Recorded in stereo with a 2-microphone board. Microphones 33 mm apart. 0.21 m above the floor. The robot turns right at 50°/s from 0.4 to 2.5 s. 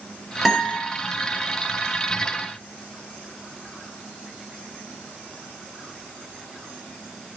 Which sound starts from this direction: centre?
A guitar, at 0.5 s.